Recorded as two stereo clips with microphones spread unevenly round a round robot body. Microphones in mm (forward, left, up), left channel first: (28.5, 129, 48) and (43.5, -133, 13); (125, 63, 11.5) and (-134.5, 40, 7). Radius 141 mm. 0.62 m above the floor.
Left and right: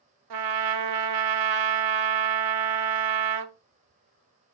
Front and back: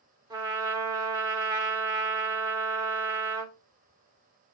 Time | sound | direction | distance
0.3 | a trumpet | 95° right | 0.5 m